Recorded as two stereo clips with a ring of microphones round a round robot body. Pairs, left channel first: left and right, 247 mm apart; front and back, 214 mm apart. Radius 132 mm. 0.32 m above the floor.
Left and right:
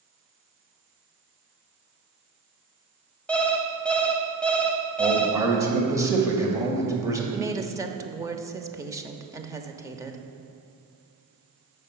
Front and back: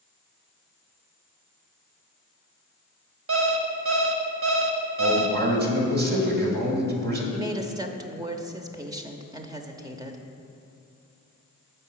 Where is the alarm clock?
175° left, 1.1 m.